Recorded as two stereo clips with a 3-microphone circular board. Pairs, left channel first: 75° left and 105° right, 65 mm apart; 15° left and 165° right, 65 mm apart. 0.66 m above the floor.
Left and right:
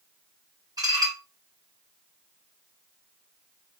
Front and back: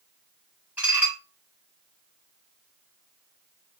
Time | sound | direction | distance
0.8 | dishes clattering | 100° right | 3 m